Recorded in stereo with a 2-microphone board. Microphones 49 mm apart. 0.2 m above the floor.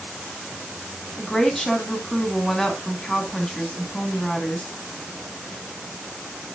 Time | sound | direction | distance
1.2 | a woman speaking | 10° left (ahead or behind) | 1.9 m